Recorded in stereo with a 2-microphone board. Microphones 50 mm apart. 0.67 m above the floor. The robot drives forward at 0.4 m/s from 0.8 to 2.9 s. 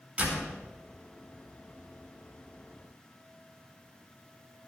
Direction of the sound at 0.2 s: 30° right (ahead or behind).